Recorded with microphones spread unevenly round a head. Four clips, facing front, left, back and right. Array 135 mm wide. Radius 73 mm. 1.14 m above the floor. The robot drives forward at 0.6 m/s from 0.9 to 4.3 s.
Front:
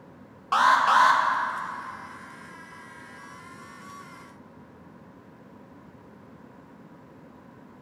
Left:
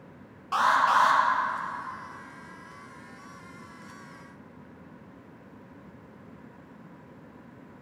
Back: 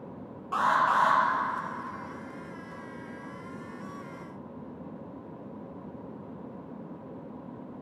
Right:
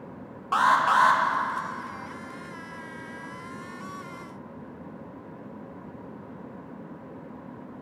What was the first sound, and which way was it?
An alarm, 15° right.